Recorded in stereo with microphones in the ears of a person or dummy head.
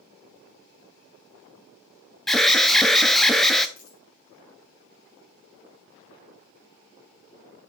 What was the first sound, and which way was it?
An alarm, 5° left (ahead or behind).